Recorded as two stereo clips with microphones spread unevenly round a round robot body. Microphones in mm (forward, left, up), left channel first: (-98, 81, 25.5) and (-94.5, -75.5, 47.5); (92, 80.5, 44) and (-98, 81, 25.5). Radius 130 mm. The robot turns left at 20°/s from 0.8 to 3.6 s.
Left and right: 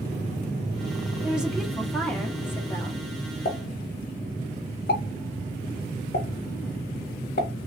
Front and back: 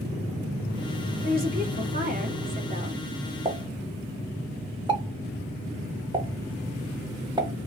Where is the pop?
115° left, 1.2 m; by 7.5 s 110° left, 1.2 m.